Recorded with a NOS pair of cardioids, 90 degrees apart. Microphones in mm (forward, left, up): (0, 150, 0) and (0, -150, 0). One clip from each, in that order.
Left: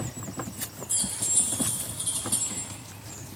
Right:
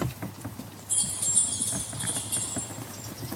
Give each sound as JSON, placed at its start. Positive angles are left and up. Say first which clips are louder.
{"t": 0.9, "sound": "keys jangling", "louder": "even", "azimuth_deg": 5, "distance_m": 1.2}